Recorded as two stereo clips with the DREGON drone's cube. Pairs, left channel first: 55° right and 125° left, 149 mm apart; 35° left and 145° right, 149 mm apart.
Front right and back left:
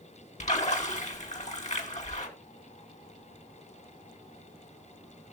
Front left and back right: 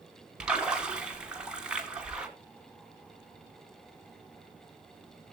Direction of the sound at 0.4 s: 65° right.